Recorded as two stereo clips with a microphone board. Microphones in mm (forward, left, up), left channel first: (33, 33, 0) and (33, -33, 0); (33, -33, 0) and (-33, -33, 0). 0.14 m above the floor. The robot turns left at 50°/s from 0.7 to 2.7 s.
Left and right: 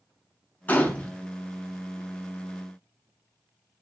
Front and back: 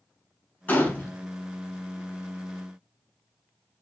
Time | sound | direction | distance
0.7 | a gunshot | 45° left | 0.6 m